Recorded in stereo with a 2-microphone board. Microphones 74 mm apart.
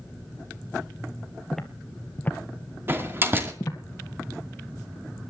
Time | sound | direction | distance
1.5 | footsteps | centre (ahead or behind) | 1.5 m
2.9 | a door slam | 30° right (ahead or behind) | 2 m